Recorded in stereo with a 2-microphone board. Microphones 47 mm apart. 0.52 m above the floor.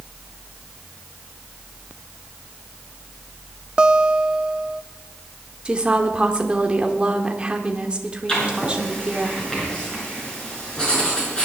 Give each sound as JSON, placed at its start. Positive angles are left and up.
{"t": 3.8, "sound": "a guitar", "side_deg": -20, "distance_m": 0.6}
{"t": 5.7, "sound": "a woman speaking", "side_deg": -25, "distance_m": 1.3}
{"t": 8.3, "sound": "writing", "side_deg": 20, "distance_m": 6.5}